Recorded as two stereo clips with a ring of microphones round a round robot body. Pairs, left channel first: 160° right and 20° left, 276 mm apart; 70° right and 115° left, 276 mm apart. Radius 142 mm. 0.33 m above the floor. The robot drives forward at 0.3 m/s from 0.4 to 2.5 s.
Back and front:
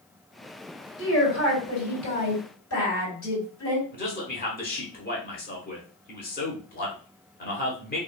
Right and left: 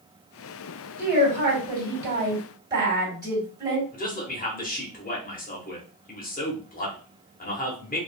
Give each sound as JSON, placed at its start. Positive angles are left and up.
{"t": 1.0, "sound": "a woman speaking", "azimuth_deg": -170, "distance_m": 2.0}
{"t": 3.9, "sound": "a man speaking", "azimuth_deg": -115, "distance_m": 1.1}